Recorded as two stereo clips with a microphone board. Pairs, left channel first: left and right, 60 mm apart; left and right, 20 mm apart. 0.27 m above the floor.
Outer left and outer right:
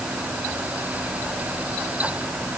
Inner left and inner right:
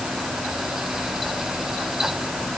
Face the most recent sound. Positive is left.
No sound to turn to.